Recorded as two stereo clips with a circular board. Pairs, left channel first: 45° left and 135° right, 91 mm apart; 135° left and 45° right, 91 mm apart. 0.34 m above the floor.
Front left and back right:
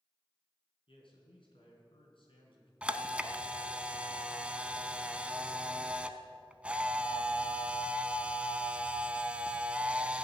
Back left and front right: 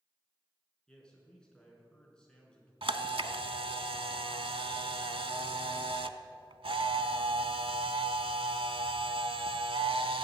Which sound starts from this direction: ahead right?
A camera shutter, at 2.8 s.